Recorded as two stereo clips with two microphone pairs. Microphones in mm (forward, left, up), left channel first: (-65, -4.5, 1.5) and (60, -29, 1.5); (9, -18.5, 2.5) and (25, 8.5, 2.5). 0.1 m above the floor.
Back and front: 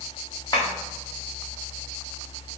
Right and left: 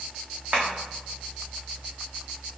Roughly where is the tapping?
Left.